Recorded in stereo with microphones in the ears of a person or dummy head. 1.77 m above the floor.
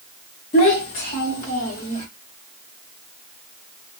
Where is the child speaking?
30° left (ahead or behind), 0.8 m; by 2.0 s 40° left (ahead or behind), 1.7 m.